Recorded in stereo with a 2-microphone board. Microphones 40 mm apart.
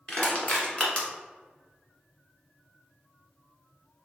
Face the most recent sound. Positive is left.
turn(degrees=30)  # may be behind; listen again after turning